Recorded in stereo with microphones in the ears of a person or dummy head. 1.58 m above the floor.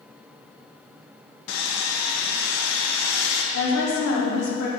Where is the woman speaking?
70° left (ahead or behind), 2.5 m.